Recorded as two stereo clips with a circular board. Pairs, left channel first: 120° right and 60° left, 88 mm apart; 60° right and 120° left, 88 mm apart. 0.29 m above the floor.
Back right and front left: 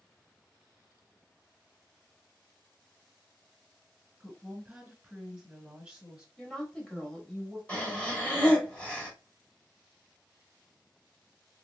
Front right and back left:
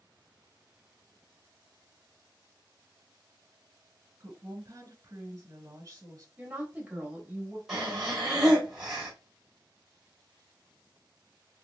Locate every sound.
4.2 s a woman speaking: 130° left, 1.9 m
6.4 s a woman speaking: 170° left, 1.2 m
7.7 s breathing: 170° right, 1.3 m